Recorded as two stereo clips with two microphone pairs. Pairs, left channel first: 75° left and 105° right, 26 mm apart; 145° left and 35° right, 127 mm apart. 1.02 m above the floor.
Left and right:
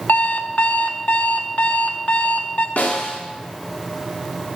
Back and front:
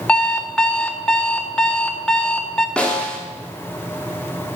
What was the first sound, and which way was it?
An alarm clock, 65° left.